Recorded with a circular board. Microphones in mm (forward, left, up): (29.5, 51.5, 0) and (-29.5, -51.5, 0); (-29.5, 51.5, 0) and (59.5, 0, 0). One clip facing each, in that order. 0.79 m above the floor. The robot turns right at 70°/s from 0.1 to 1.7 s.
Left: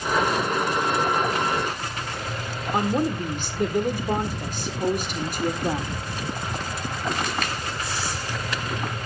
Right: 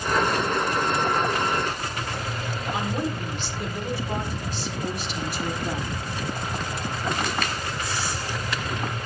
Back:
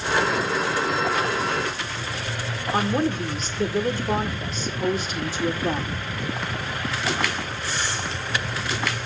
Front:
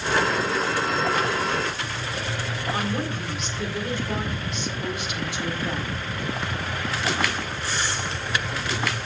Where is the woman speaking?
100° left, 1.7 m.